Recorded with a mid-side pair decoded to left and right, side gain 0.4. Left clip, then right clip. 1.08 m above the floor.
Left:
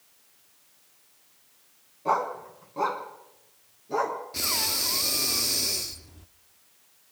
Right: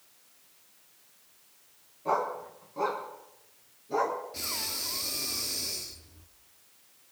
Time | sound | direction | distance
2.0 | a dog barking | 40° left | 3.5 m
4.3 | breathing | 55° left | 1.1 m